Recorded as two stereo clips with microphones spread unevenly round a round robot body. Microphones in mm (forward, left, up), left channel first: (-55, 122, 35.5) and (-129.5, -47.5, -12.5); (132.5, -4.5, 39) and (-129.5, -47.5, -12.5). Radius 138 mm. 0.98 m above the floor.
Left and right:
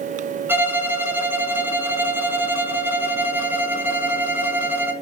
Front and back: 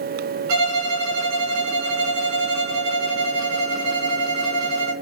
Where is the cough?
I don't hear a cough.